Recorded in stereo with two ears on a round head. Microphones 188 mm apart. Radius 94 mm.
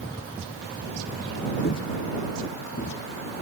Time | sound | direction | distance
1.6 | footsteps | 50° left (ahead or behind) | ?